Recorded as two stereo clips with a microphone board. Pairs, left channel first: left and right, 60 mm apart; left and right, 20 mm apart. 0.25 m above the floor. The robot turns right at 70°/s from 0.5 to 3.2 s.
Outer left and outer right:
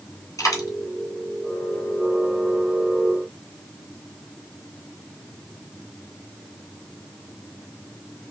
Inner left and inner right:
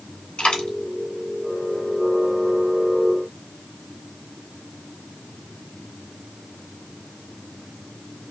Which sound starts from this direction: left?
A dropped coin, at 0.4 s.